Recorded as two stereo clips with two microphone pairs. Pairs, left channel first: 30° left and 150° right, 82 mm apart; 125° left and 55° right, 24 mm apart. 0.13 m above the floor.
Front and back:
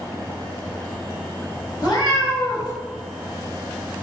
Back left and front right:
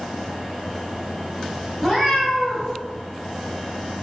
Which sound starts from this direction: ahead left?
A cat meowing, at 1.8 s.